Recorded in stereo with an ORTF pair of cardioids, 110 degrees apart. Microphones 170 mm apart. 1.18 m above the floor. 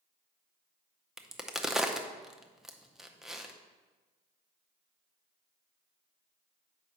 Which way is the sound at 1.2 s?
5° right.